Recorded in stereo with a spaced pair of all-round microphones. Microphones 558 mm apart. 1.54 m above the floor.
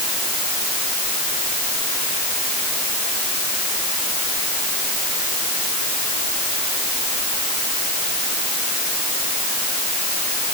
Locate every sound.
Only background noise.